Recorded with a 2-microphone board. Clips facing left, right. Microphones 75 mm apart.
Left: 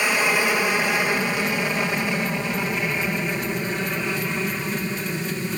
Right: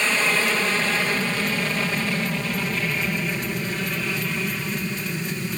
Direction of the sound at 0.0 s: 15° left (ahead or behind).